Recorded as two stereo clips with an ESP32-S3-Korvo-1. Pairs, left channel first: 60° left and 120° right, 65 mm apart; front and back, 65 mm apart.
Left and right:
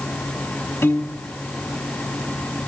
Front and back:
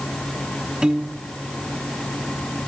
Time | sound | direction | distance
0.8 | a piano | 105° left | 0.8 m